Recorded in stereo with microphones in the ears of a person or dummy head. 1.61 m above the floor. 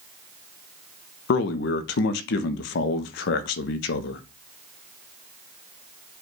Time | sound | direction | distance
1.3 | a man speaking | 65° left (ahead or behind) | 0.5 m